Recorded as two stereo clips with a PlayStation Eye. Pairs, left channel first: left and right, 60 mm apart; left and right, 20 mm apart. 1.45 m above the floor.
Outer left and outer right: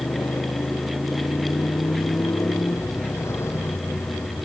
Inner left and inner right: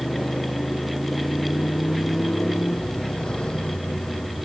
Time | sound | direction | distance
0.0 | a motorcycle | 50° left (ahead or behind) | ?